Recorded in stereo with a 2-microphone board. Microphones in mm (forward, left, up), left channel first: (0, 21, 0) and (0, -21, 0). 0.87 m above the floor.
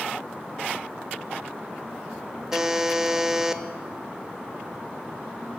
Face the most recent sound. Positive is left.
turn(degrees=-10)  # may be behind; listen again after turning